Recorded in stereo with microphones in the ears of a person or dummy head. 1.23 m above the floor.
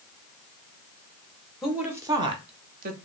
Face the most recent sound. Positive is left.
turn(degrees=-50)  # may be behind; listen again after turning